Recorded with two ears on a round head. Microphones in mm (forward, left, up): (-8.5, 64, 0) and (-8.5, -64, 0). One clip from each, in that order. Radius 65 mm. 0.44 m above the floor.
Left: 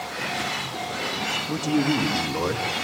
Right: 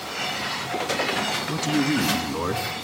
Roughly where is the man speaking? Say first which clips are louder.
Even; right.